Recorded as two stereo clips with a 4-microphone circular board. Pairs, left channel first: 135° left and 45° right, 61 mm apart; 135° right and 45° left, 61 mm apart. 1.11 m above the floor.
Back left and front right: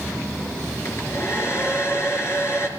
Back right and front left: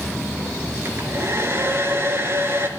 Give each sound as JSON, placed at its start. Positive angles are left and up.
{"t": 0.8, "sound": "a hair dryer", "azimuth_deg": 95, "distance_m": 4.5}